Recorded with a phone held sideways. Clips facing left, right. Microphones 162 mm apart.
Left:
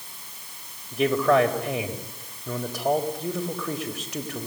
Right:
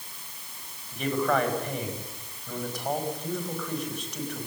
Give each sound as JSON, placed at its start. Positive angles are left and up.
{"t": 0.9, "sound": "a man speaking", "side_deg": 80, "distance_m": 4.5}